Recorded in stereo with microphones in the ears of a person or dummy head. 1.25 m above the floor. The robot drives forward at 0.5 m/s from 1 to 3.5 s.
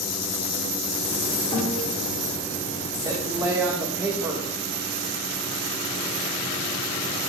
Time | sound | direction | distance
1.5 | a guitar | 10° left (ahead or behind) | 4.5 m
3.0 | a woman speaking | 15° right (ahead or behind) | 1.1 m